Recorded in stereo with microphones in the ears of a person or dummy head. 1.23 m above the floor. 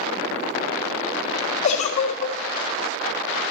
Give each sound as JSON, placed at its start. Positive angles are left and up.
{"t": 1.6, "sound": "a giggle", "side_deg": 35, "distance_m": 1.0}